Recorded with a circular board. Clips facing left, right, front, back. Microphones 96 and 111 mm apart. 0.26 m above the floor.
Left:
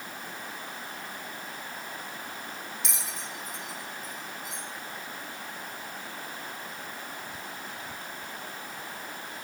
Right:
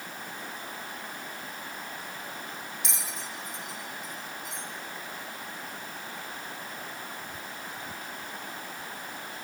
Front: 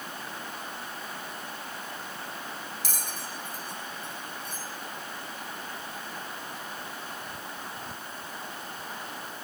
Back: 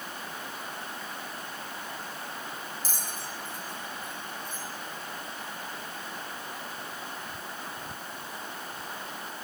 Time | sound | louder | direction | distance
2.8 | a bell | even, even | straight ahead | 1.4 m